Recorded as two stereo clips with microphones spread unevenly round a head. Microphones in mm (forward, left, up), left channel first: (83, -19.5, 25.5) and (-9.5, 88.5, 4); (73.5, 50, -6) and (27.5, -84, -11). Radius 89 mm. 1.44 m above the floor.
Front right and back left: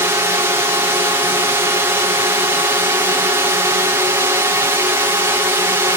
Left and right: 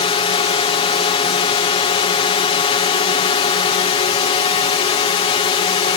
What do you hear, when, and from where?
0.0 s a drone: 80° left